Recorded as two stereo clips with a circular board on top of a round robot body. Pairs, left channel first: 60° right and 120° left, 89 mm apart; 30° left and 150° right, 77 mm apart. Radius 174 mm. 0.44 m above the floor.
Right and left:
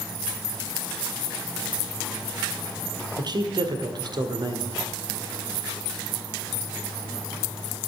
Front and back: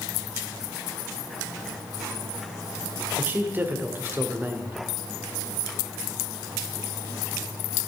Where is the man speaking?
150° left, 1.9 m.